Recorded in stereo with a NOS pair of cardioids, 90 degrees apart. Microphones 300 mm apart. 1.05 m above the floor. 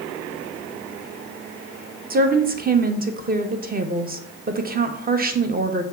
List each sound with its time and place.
2.1 s a woman speaking: 30° right, 0.7 m